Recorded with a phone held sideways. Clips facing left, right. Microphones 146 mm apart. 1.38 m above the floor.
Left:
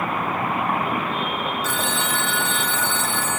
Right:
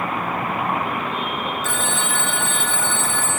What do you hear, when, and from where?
1.6 s a phone ringing: 45° right (ahead or behind), 1.0 m